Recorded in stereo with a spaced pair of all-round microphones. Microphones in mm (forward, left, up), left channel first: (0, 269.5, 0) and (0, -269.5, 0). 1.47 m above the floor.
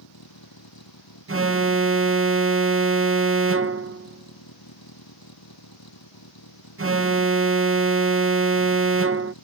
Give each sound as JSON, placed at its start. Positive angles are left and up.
{"t": 0.0, "sound": "a vehicle", "side_deg": 40}
{"t": 1.3, "sound": "an alarm", "side_deg": -25}